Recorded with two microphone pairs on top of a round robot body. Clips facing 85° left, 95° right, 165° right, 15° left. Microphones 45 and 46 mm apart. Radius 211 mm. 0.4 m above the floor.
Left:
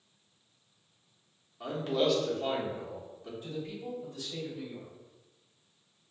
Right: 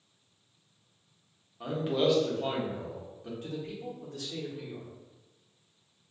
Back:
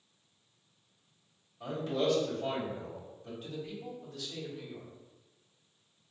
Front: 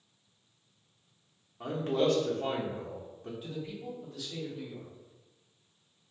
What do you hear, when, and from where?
1.6 s a man speaking: 15° right, 1.3 m
3.4 s a man speaking: 70° right, 1.7 m